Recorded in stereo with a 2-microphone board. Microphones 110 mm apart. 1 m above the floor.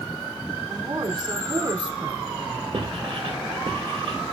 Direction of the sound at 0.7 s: 45° right (ahead or behind).